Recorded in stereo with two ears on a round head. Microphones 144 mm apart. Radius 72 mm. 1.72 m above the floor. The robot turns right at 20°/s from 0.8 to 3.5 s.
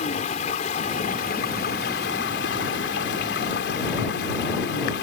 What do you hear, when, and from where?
0.0 s running water: 45° left; by 5.0 s 100° left